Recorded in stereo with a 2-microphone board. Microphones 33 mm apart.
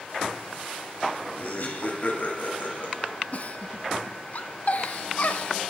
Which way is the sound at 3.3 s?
50° left (ahead or behind).